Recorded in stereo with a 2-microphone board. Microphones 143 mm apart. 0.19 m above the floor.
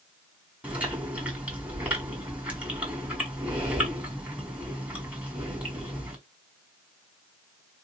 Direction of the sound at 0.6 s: 10° right (ahead or behind).